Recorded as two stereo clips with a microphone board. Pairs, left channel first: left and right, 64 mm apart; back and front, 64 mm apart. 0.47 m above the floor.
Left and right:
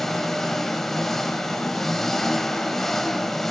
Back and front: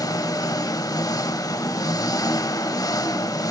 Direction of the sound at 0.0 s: 175° left.